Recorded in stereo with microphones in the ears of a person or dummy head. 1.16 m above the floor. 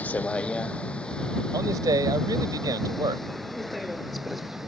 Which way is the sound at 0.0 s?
5° left (ahead or behind).